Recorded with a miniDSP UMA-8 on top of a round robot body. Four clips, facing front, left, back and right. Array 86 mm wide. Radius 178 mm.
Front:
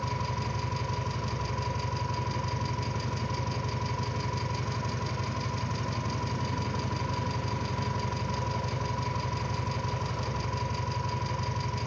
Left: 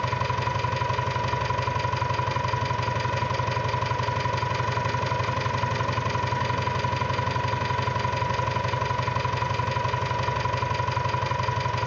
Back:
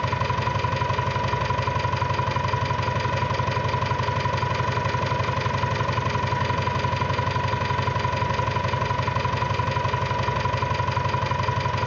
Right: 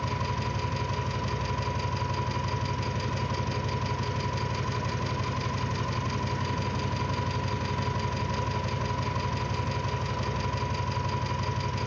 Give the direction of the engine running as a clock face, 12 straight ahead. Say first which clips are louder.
Left 5 dB, back 9 dB; 7 o'clock.